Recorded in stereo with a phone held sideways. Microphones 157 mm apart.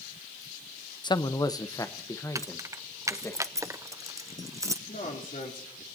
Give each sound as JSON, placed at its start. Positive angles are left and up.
{"t": 1.0, "sound": "a man speaking", "side_deg": 30, "distance_m": 0.6}
{"t": 2.4, "sound": "keys jangling", "side_deg": -20, "distance_m": 0.6}
{"t": 4.9, "sound": "a man speaking", "side_deg": 60, "distance_m": 3.5}